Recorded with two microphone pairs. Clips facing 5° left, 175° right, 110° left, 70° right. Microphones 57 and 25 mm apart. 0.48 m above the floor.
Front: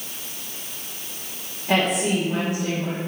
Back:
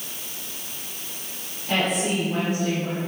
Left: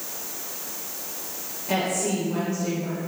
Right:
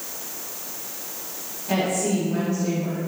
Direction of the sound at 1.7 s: 35° left.